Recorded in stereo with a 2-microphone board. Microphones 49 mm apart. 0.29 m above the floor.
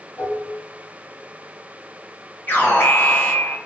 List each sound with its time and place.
0.2 s dishes clattering: 50° left (ahead or behind), 1.2 m
2.5 s an alarm: 40° left (ahead or behind), 1.1 m